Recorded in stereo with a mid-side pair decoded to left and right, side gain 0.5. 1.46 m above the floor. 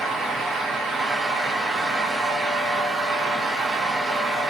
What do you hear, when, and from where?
0.0 s a fan: 45° right, 1.5 m